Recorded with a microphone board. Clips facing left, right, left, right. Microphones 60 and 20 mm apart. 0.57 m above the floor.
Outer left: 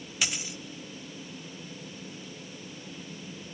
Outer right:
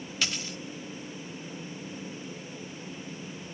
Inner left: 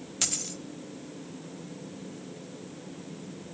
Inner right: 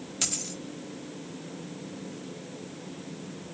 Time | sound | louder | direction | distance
0.2 | a dropped coin | even, even | 10° left (ahead or behind) | 0.8 m